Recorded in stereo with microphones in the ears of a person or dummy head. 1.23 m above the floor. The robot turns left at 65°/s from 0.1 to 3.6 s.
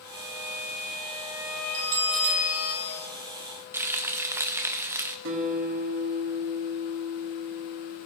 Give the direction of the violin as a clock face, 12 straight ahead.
2 o'clock.